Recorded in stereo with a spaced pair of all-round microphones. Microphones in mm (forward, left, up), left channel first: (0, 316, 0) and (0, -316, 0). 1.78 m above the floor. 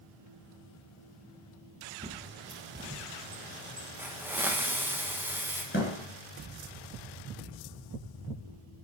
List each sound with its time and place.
2.0 s a bird: 15° right (ahead or behind), 1.2 m
4.0 s a hiss: 5° right (ahead or behind), 1.0 m
5.7 s a thud: 20° left (ahead or behind), 2.5 m